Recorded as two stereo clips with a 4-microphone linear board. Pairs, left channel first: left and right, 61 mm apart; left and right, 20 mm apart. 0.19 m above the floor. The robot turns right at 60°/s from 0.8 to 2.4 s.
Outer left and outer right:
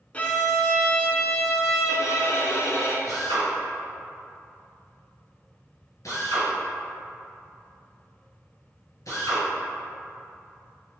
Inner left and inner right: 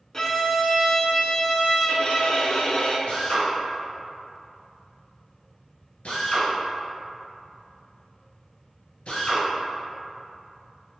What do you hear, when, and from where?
0.1 s a violin: 25° left, 0.5 m; by 3.0 s 125° left, 0.5 m
3.1 s a drill: 65° left (ahead or behind), 1.6 m